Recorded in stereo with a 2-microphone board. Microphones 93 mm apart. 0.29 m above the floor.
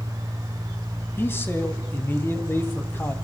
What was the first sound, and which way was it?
A man speaking, 25° left (ahead or behind).